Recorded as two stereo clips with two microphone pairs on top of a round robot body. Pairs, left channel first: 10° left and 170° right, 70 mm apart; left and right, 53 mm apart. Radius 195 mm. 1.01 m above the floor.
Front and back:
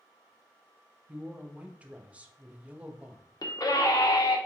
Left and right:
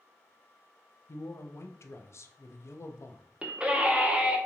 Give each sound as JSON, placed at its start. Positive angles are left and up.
{"t": 1.1, "sound": "a man speaking", "azimuth_deg": 120, "distance_m": 0.6}
{"t": 3.4, "sound": "a scream", "azimuth_deg": -15, "distance_m": 1.1}